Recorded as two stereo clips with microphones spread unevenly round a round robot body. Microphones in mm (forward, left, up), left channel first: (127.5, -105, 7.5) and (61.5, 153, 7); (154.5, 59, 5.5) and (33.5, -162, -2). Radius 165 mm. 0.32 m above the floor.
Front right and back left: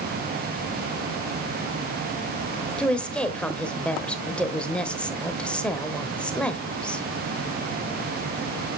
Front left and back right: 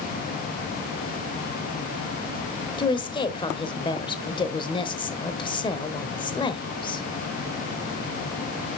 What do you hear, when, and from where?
2.8 s a woman speaking: 5° left, 1.0 m